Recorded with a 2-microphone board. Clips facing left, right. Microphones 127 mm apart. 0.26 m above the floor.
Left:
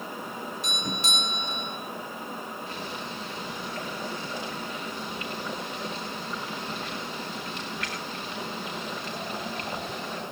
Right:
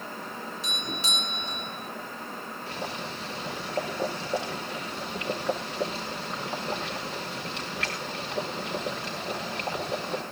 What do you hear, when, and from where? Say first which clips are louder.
0.6 s a doorbell: left 3 dB; 50° left (ahead or behind), 4.5 m
2.7 s boiling: right 1 dB; 80° right, 5 m